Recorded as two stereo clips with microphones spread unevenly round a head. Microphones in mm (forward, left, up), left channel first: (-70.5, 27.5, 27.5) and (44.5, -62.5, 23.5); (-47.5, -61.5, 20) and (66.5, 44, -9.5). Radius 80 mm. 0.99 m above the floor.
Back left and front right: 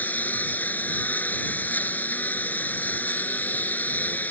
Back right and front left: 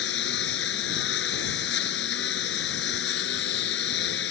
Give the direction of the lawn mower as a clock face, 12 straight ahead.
5 o'clock.